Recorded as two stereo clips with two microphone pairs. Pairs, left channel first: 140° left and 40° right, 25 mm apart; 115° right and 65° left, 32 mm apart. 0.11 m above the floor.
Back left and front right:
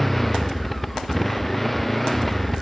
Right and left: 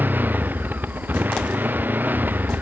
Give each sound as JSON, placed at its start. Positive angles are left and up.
{"t": 0.0, "sound": "a motorcycle", "azimuth_deg": 55}